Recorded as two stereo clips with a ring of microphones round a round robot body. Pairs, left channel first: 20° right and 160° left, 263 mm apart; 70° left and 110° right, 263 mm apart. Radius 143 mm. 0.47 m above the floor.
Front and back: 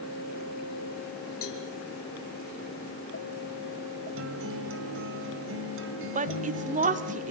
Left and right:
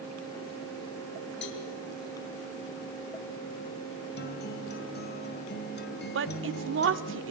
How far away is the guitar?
About 2.5 m.